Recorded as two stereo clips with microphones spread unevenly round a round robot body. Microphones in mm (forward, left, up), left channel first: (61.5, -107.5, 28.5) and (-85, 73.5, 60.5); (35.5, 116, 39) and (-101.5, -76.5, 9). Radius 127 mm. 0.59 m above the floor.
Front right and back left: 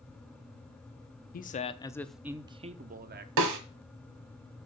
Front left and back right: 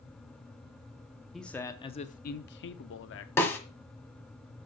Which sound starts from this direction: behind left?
A snare drum, at 3.4 s.